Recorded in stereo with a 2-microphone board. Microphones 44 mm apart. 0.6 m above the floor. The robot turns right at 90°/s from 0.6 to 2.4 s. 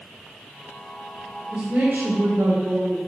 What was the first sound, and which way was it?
A woman speaking, 150° right.